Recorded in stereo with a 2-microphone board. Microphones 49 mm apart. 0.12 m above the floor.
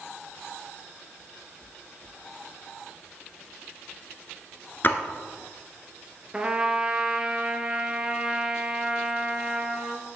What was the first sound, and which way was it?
A splash, 40° left (ahead or behind).